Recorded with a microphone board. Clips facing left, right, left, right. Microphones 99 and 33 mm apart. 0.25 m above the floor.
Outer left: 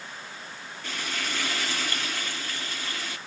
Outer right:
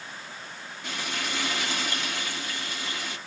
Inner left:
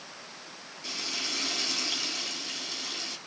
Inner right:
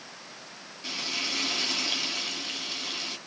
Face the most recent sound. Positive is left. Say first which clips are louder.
# outer right 1 dB, inner right 3 dB
turn(degrees=-20)  # may be behind; listen again after turning